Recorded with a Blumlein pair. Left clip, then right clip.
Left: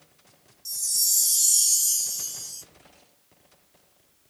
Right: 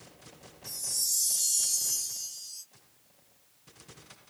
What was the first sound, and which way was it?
A chime, 35° left.